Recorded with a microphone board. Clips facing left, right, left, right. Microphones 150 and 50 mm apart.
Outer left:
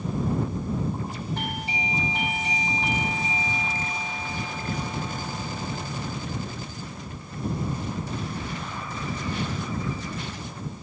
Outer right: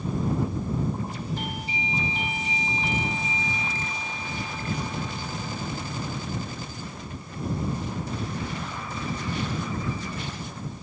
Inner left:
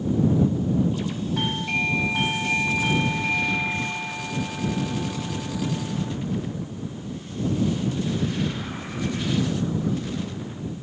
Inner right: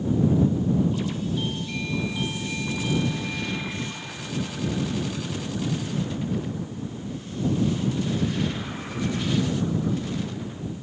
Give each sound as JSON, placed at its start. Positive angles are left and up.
{"t": 1.4, "sound": "a doorbell", "side_deg": 65}